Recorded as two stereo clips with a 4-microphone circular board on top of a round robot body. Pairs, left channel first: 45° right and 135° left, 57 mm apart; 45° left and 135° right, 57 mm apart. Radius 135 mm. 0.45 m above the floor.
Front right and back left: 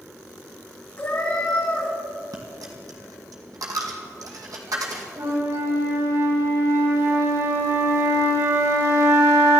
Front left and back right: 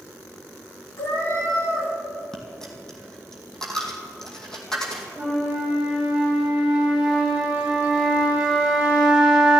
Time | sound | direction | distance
1.0 | a cat meowing | 20° left | 4.5 m
2.3 | a dropped coin | 125° left | 2 m
5.2 | a flute | 145° left | 7 m